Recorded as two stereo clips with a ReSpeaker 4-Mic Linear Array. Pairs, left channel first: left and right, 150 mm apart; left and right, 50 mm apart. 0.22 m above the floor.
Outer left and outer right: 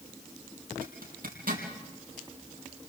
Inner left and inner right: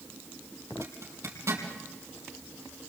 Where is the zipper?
70° right (ahead or behind), 4.5 m.